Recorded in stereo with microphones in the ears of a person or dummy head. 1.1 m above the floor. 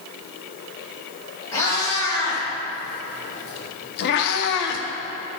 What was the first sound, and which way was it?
A cat meowing, 30° left (ahead or behind).